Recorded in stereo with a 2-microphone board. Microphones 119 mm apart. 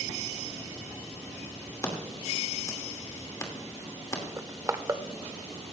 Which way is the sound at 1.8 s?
25° left (ahead or behind).